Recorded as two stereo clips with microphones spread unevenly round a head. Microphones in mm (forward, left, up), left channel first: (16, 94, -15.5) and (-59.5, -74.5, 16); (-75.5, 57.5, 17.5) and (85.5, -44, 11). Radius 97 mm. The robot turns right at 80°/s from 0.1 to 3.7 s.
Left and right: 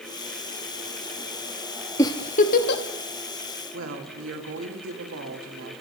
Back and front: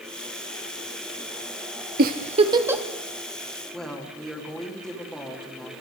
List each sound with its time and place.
2.0 s a giggle: 15° right, 1.4 m; by 2.8 s 55° left, 1.4 m
3.7 s a woman speaking: 125° right, 4 m